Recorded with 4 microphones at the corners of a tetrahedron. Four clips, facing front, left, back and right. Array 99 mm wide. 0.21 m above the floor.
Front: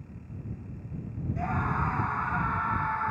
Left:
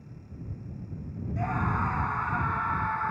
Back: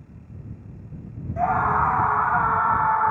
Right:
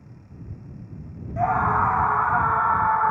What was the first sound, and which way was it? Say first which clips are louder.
A scream: right 9 dB, back 10 dB; 135° right.